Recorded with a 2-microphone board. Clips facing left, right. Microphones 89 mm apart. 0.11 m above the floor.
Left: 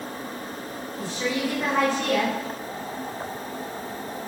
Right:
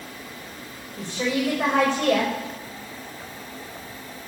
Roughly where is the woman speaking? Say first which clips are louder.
Right 2 dB; right.